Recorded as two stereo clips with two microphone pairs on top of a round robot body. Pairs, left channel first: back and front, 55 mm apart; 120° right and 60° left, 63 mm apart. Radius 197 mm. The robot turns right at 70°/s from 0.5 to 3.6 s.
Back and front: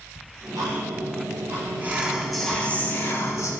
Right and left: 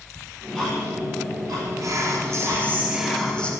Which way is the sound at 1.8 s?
50° left.